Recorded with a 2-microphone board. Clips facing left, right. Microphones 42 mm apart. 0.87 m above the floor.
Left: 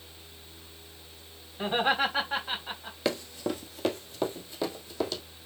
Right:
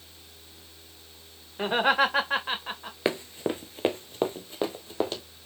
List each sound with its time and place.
1.6 s laughter: 75° right (ahead or behind), 2.5 m; by 3.0 s 45° right (ahead or behind), 3 m
3.0 s running footsteps: 30° right (ahead or behind), 0.9 m; by 5.2 s 35° right (ahead or behind), 2.5 m